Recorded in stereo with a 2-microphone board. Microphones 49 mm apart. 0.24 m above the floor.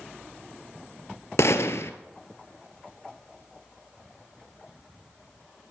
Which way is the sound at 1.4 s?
75° left (ahead or behind).